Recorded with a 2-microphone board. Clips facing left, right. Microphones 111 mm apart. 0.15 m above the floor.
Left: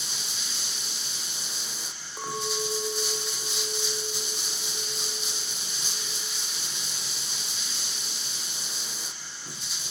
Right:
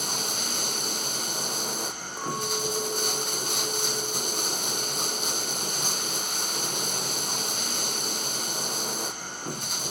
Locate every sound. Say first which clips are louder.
0.0 s running water: right 9 dB; 55° right (ahead or behind), 0.8 m
2.2 s a clink: right 1 dB; centre (ahead or behind), 6 m